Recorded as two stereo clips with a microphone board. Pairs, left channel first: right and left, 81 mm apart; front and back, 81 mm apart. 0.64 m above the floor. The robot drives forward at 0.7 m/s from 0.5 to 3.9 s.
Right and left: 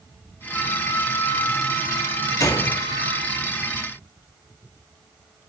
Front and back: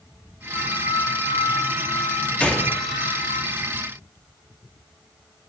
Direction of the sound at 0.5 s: 25° right.